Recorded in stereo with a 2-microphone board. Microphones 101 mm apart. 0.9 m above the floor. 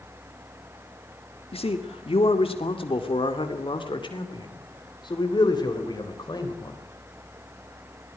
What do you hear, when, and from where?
1.5 s a man speaking: 75° left (ahead or behind), 1.8 m; by 6.8 s 40° left (ahead or behind), 4 m